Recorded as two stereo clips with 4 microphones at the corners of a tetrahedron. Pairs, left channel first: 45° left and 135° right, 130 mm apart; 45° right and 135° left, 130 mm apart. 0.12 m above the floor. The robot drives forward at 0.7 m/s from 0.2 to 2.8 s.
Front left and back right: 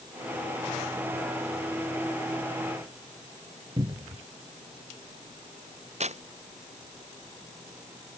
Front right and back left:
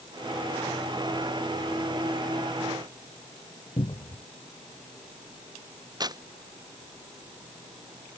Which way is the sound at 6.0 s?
165° right.